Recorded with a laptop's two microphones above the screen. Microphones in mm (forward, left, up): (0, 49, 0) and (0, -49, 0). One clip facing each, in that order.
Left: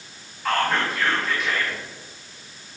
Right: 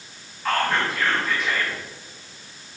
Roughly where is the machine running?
No machine running in this recording.